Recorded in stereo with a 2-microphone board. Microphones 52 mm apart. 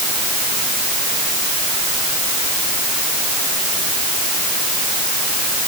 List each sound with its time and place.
Only background noise.